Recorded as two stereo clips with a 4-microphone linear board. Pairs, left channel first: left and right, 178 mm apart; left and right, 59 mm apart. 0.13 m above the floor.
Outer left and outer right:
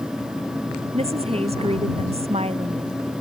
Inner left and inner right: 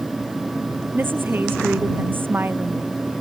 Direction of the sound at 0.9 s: 35° right (ahead or behind).